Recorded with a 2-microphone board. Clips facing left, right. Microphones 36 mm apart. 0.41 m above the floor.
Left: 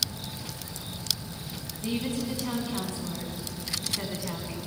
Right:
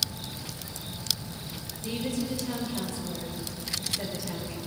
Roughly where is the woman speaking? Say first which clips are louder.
Left 1 dB; left.